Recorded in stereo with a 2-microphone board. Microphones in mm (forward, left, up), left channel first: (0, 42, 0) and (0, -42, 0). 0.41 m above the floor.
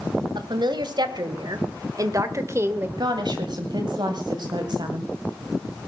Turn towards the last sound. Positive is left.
turn(degrees=-60)  # may be behind; listen again after turning